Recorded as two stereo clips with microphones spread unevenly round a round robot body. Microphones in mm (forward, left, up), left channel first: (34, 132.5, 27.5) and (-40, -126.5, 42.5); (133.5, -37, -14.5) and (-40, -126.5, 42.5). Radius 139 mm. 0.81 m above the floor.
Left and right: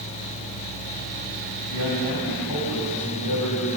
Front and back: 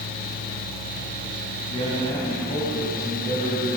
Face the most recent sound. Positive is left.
turn(degrees=95)